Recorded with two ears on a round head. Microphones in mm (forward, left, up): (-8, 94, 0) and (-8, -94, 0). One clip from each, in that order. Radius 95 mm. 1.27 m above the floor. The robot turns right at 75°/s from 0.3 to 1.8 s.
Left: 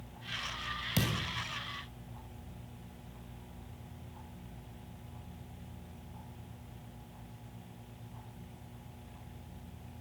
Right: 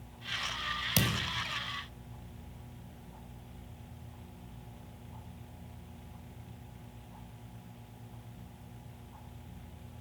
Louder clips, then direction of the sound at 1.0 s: Right 3 dB; 25° right (ahead or behind).